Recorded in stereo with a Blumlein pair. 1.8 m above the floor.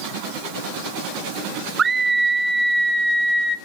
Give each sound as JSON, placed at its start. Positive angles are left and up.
{"t": 1.8, "sound": "a scream", "azimuth_deg": -20, "distance_m": 0.8}